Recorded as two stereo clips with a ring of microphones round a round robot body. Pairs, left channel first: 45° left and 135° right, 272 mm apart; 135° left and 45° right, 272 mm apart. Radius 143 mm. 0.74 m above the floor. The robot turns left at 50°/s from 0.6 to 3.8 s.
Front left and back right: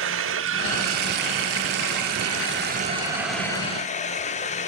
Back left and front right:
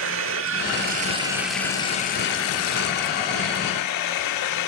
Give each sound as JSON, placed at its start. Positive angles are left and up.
{"t": 0.0, "sound": "running water", "azimuth_deg": -90, "distance_m": 1.2}